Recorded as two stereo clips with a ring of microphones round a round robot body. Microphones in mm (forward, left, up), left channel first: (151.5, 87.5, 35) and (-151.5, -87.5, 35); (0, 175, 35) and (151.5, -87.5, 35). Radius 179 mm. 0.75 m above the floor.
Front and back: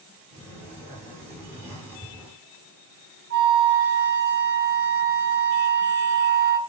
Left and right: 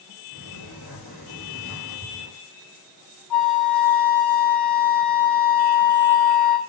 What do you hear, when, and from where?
0.3 s a sliding door: 125° left, 6.5 m
3.3 s a flute: 145° left, 3 m